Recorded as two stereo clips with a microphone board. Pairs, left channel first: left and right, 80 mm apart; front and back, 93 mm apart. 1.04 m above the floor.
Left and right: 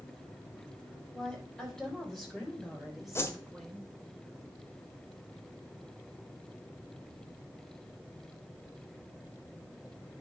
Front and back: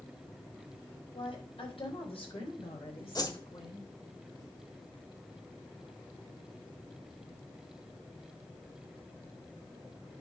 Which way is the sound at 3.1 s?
40° left.